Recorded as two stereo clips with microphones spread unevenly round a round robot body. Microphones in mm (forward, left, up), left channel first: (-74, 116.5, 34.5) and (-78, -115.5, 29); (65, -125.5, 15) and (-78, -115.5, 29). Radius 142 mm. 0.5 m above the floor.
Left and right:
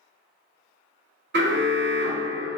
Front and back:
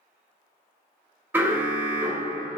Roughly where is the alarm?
Right.